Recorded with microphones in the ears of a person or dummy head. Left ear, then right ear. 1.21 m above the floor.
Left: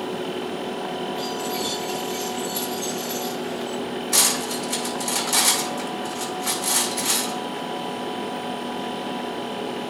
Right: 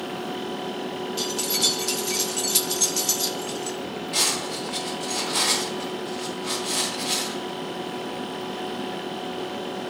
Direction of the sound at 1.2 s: 60° right (ahead or behind).